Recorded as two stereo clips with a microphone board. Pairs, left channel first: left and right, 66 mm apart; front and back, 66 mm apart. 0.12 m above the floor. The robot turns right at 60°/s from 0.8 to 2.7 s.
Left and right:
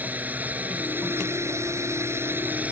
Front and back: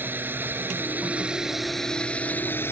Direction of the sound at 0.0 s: 140° right.